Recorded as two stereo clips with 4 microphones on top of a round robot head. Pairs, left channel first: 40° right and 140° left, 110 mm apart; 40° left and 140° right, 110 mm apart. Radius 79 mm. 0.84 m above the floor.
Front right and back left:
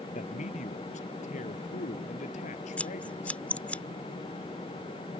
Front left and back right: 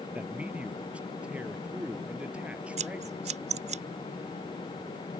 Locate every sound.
0.1 s a man speaking: 60° right
2.8 s scissors: 120° right